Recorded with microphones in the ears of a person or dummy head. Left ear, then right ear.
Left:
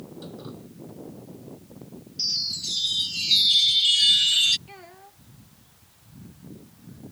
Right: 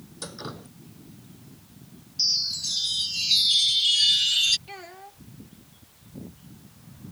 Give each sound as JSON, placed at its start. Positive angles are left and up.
{"t": 0.2, "sound": "dripping", "side_deg": -60}
{"t": 2.2, "sound": "a chime", "side_deg": 15}
{"t": 4.7, "sound": "a child speaking", "side_deg": -15}